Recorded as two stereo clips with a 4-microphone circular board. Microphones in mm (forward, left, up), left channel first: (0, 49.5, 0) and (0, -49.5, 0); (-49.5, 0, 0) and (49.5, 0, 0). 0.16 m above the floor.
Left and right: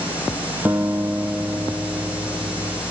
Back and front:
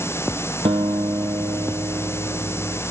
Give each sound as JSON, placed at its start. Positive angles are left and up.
{"t": 0.7, "sound": "a guitar", "azimuth_deg": -15, "distance_m": 1.0}